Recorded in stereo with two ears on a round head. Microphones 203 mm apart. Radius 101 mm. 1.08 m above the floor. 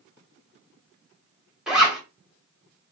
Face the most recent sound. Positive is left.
turn(degrees=0)  # may be behind; listen again after turning